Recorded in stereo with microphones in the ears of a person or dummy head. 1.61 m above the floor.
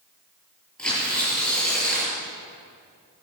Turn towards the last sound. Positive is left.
turn(degrees=10)  # may be behind; listen again after turning